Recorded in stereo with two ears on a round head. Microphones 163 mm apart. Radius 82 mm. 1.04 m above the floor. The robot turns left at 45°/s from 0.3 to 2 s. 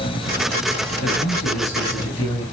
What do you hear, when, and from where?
1.0 s a man speaking: 70° left, 6.5 m; by 2.4 s 25° left, 6.5 m